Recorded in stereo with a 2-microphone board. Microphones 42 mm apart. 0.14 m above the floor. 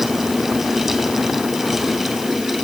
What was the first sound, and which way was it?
Only background noise.